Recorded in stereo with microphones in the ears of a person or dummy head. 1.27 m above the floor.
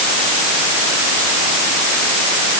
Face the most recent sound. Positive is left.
No sound to turn to.